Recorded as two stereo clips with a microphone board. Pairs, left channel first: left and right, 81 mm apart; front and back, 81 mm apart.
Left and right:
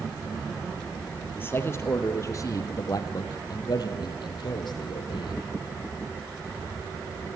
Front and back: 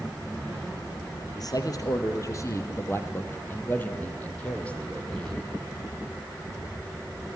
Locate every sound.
1.4 s a man speaking: 30° left, 2.5 m; by 5.4 s 80° left, 4 m